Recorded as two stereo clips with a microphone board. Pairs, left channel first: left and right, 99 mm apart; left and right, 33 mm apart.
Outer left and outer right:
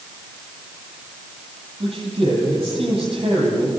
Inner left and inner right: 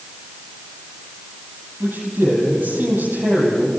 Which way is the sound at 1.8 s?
70° right (ahead or behind).